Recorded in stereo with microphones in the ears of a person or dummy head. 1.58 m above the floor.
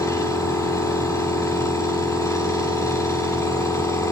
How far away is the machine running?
About 1.9 m.